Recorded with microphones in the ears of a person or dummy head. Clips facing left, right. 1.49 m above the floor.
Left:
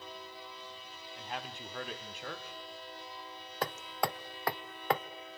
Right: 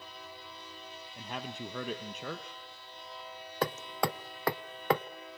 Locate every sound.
1.2 s a man speaking: 85° right, 1.8 m
3.6 s hammering: 65° right (ahead or behind), 0.7 m